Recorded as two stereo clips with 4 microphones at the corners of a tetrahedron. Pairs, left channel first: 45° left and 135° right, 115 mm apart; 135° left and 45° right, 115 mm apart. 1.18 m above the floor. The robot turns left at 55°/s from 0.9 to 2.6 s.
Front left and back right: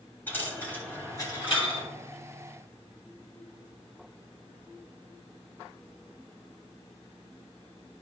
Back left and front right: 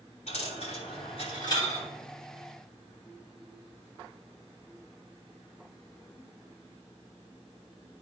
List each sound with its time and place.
0.3 s a dropped coin: 120° left, 3 m; by 1.9 s 65° left, 3 m